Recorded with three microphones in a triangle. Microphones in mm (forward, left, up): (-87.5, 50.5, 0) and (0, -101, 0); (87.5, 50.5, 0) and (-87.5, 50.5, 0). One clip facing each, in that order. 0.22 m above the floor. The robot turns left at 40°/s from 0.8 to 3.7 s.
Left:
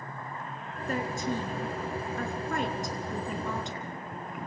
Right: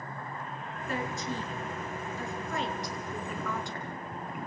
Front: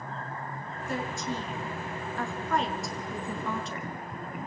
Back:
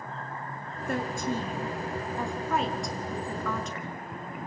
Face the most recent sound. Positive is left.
turn(degrees=50)